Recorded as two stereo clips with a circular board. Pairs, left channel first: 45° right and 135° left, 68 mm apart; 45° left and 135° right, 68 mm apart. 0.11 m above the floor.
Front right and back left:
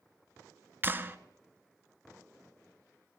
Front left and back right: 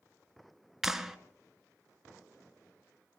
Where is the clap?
145° left, 1.0 m.